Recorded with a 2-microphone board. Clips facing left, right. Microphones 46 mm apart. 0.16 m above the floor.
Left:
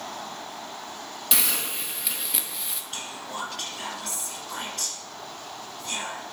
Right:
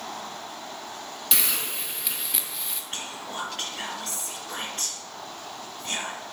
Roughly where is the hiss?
Centre.